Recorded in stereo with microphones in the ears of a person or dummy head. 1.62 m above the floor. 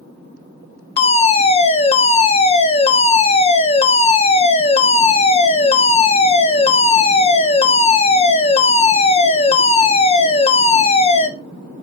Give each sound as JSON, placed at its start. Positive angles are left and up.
{"t": 1.0, "sound": "a fire alarm", "side_deg": 30, "distance_m": 0.8}